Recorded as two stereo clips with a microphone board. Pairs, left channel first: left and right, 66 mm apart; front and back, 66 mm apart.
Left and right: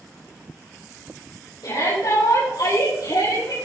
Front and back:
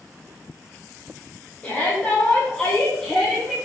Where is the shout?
70° left, 7 m; by 3.5 s 85° left, 6.5 m.